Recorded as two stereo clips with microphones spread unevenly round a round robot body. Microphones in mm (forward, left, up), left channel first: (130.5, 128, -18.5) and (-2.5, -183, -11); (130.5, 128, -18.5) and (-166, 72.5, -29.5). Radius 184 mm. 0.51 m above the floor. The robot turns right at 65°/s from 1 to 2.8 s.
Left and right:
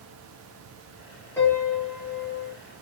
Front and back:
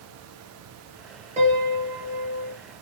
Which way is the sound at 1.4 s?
145° left.